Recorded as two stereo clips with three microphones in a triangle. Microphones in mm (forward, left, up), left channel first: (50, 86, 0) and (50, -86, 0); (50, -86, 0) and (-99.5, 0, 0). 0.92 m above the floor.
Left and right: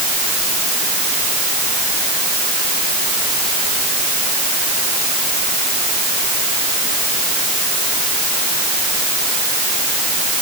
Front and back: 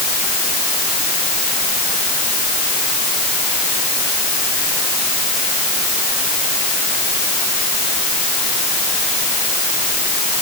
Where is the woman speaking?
No woman speaking in this recording.